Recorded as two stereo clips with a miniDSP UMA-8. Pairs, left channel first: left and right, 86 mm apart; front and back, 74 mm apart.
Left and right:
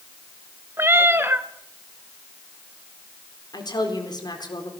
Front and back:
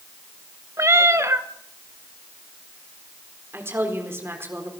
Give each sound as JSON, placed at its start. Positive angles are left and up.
{"t": 0.8, "sound": "a cat meowing", "azimuth_deg": -145, "distance_m": 1.3}
{"t": 3.5, "sound": "a woman speaking", "azimuth_deg": 125, "distance_m": 4.0}